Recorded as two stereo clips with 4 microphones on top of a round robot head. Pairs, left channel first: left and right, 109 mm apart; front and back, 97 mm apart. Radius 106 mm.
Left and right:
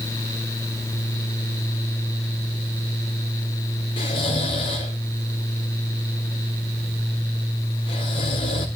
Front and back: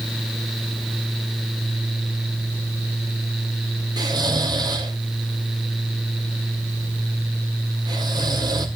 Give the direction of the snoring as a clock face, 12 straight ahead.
8 o'clock.